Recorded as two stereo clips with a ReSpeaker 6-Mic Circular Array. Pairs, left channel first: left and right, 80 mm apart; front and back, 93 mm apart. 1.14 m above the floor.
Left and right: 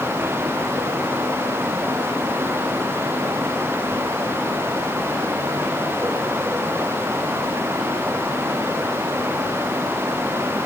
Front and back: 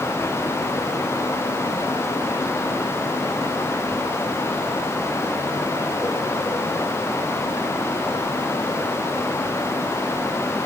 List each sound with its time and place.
Only background noise.